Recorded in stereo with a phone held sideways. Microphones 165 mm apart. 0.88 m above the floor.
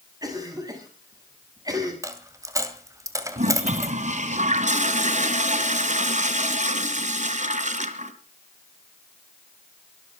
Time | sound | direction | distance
0.2 | a cough | 20° right (ahead or behind) | 7 m
2.0 | a dropped coin | 20° right (ahead or behind) | 2 m
3.4 | a toilet flushing | 45° right (ahead or behind) | 1.9 m